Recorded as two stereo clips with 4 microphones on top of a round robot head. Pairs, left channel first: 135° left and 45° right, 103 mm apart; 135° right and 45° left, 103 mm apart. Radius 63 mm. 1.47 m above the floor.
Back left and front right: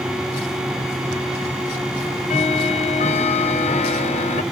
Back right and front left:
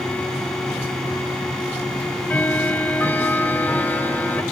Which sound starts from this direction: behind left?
Ticking, at 2.0 s.